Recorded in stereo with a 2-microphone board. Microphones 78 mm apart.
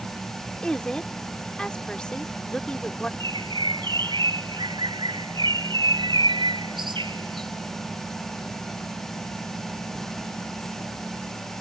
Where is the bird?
70° right (ahead or behind).